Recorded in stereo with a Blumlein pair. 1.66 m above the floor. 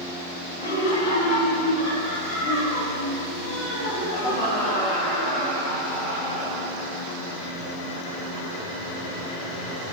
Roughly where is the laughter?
Ahead left.